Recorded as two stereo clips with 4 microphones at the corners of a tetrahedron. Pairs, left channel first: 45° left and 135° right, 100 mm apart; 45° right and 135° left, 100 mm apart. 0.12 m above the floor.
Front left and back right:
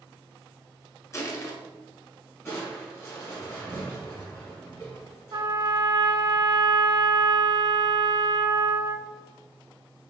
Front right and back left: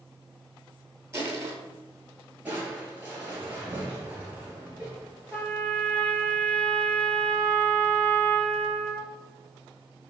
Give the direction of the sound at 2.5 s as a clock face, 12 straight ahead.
9 o'clock.